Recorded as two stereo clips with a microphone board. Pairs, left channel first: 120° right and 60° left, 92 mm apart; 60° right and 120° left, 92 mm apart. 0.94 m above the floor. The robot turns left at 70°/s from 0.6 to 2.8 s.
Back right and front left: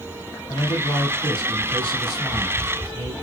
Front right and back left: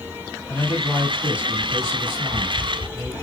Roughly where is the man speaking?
Right.